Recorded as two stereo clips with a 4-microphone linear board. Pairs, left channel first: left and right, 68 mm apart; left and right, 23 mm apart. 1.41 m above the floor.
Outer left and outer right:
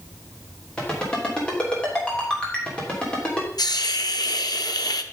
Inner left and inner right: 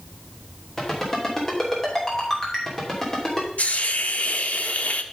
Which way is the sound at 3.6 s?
80° left.